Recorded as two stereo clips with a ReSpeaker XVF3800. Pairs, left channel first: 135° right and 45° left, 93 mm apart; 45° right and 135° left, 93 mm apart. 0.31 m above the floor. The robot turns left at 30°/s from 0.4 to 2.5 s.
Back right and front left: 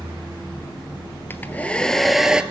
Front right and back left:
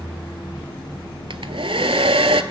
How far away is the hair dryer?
About 0.8 m.